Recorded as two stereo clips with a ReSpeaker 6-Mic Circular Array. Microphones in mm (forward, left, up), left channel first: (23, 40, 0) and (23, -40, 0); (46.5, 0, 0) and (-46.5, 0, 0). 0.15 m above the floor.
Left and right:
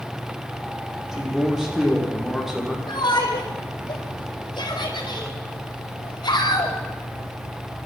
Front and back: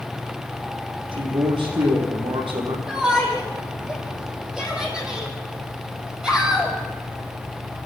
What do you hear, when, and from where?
1.1 s a man speaking: 175° right, 6 m
2.9 s a shout: 100° left, 4.5 m